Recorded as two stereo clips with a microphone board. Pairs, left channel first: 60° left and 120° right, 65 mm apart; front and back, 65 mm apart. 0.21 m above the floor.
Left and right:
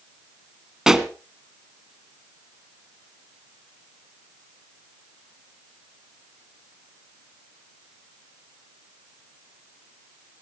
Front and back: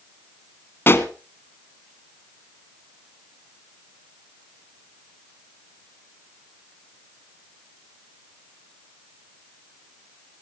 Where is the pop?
40° right, 1.3 m.